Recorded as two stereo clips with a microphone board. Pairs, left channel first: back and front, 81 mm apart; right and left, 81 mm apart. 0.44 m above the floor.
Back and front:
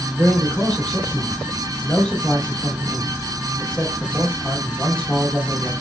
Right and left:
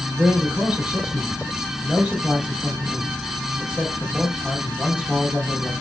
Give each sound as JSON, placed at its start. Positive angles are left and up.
{"t": 0.2, "sound": "a man speaking", "azimuth_deg": 130, "distance_m": 1.0}